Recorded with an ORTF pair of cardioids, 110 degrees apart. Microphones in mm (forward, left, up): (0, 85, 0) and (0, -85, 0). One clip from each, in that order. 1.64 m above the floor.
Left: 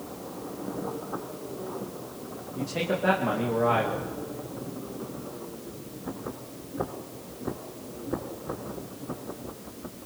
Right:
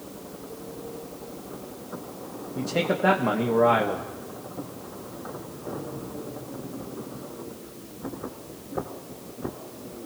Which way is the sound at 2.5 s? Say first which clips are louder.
Right 3 dB; 30° right.